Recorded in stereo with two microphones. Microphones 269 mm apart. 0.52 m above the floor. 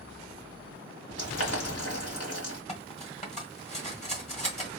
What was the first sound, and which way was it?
Boiling, 65° left (ahead or behind).